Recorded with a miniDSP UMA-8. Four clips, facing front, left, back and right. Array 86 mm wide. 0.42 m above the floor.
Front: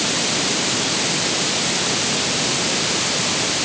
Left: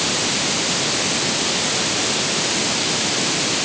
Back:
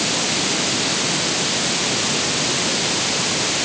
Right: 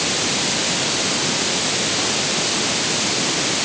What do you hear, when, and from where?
Only background noise.